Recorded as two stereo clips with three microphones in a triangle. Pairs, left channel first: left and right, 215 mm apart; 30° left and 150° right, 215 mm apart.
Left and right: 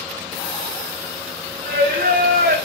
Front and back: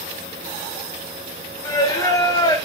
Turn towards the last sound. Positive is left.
turn(degrees=-45)